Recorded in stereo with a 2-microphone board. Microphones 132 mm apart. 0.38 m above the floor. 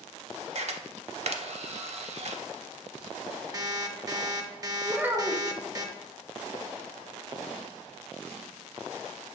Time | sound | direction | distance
0.6 | a camera shutter | 55° right (ahead or behind) | 0.5 m
3.5 | an alarm clock | 25° right (ahead or behind) | 0.6 m
4.8 | a child speaking | 15° right (ahead or behind) | 0.6 m